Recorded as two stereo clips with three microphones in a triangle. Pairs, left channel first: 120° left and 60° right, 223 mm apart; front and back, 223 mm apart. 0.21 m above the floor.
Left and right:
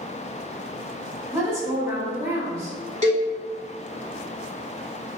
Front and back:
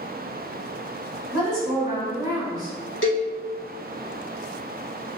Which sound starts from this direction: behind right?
A woman speaking, at 1.3 s.